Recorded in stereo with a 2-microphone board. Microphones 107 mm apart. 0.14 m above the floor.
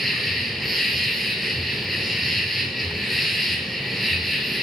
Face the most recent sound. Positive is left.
turn(degrees=0)  # may be behind; listen again after turning